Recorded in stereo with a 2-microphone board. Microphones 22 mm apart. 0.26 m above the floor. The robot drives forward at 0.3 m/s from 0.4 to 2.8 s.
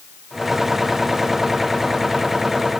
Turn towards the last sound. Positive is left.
No sound to turn to.